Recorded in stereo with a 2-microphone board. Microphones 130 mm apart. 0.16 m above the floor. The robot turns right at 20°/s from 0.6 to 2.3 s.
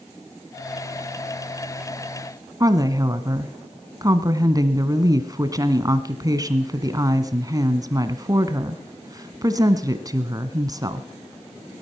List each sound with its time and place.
2.6 s a woman speaking: 30° right (ahead or behind), 1.2 m